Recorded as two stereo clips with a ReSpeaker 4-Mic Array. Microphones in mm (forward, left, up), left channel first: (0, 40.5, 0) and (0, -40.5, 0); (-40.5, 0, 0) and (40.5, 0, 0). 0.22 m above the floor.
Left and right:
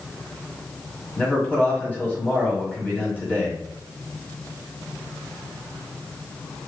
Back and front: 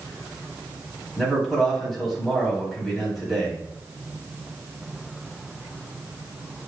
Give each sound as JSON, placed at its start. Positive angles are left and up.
{"t": 1.2, "sound": "a man speaking", "azimuth_deg": 95, "distance_m": 1.3}